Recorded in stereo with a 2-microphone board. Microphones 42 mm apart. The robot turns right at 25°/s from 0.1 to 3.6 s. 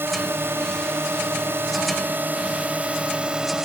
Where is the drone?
105° right; by 3.6 s 20° right.